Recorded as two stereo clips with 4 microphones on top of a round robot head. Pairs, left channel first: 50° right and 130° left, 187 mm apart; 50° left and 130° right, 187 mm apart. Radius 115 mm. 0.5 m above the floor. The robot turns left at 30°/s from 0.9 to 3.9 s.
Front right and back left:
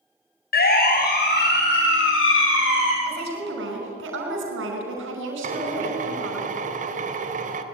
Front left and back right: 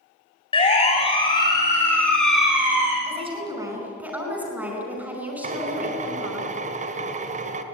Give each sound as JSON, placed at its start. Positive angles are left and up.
{"t": 0.5, "sound": "a siren", "azimuth_deg": -10, "distance_m": 4.0}
{"t": 3.0, "sound": "a woman speaking", "azimuth_deg": 175, "distance_m": 5.0}
{"t": 5.4, "sound": "a drill", "azimuth_deg": 180, "distance_m": 1.6}